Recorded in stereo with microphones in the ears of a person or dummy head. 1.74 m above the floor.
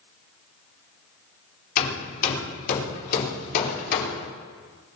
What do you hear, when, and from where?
1.8 s hammering: 50° left (ahead or behind), 4 m